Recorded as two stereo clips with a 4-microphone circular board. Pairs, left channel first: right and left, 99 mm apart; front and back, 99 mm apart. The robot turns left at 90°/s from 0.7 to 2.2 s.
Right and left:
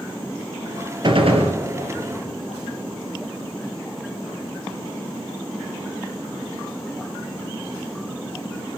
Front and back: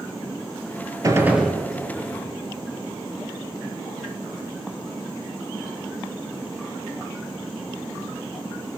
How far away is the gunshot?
About 1.4 m.